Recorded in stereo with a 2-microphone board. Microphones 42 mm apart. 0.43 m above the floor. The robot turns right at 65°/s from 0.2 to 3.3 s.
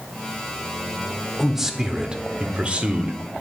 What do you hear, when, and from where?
1.4 s a man speaking: centre (ahead or behind), 0.9 m; by 3.2 s 25° right (ahead or behind), 0.9 m